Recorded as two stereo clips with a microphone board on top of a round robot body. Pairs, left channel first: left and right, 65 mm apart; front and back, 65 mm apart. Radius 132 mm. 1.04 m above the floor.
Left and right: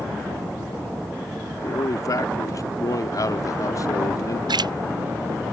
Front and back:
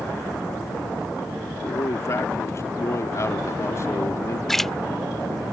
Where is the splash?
90° right.